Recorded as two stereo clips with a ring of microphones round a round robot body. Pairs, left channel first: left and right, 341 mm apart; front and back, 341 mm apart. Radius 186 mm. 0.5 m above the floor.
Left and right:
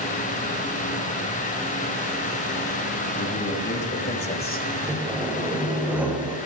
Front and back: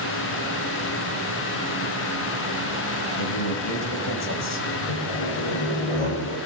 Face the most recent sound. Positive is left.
turn(degrees=-5)